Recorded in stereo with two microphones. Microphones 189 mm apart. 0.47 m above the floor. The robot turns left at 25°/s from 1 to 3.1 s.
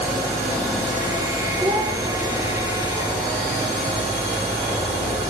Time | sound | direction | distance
1.6 | a child speaking | 30° right (ahead or behind) | 4.5 m